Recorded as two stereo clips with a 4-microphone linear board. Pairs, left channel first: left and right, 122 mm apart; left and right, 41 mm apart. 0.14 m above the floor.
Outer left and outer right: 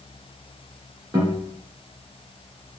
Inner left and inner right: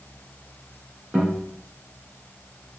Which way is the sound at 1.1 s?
25° right (ahead or behind).